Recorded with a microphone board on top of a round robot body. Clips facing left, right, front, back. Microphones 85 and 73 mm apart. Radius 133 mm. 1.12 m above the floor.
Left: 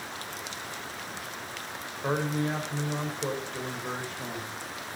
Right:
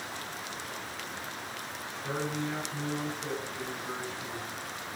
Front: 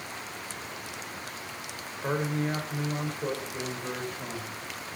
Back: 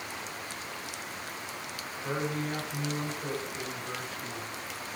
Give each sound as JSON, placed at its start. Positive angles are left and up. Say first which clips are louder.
{"t": 2.0, "sound": "a man speaking", "louder": "left 5 dB, front 4 dB", "azimuth_deg": 55, "distance_m": 5.5}